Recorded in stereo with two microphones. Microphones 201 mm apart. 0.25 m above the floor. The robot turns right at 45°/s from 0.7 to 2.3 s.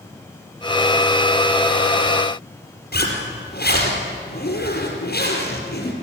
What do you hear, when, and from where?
2.9 s a zipper: 50° left (ahead or behind), 4.5 m